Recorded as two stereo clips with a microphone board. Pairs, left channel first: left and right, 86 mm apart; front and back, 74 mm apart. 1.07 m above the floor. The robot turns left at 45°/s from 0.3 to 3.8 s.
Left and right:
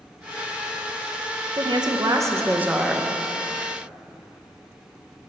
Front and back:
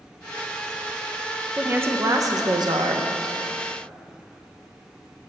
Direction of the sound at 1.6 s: 110° right.